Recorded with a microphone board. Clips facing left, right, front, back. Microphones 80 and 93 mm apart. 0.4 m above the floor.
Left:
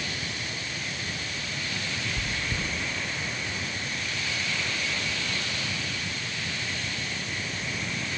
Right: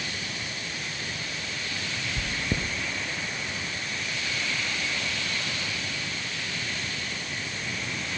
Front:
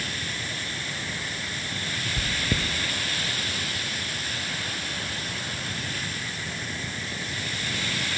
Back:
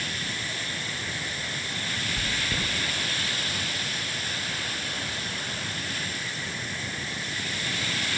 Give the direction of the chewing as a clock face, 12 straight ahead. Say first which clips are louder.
Right 1 dB, front 4 dB; 2 o'clock.